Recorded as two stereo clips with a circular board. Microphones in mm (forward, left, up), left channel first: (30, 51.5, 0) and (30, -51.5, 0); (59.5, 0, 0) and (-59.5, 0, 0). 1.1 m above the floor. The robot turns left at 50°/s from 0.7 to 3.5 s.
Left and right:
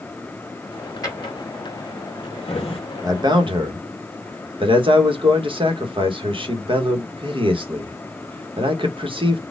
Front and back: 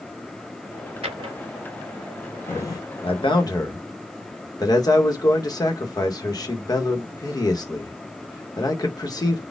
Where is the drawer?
145° left, 1.8 m; by 2.8 s 55° left, 1.8 m.